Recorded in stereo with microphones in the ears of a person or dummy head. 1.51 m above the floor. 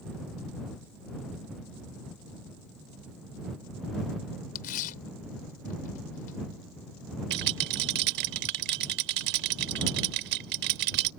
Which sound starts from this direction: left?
Tearing paper, at 4.5 s.